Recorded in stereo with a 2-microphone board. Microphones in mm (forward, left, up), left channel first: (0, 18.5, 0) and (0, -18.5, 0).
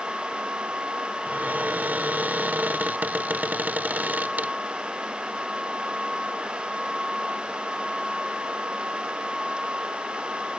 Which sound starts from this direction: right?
A cupboard door, at 1.3 s.